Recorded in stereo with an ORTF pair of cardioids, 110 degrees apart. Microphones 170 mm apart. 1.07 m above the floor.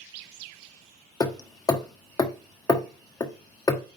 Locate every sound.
1.2 s hammering: 20° left, 1.4 m